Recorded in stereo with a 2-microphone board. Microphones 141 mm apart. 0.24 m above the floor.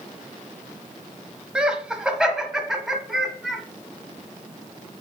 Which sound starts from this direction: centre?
Laughter, at 1.6 s.